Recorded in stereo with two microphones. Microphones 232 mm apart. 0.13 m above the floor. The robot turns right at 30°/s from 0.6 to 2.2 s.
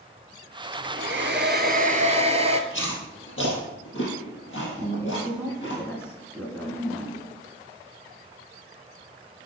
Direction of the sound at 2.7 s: 60° left (ahead or behind).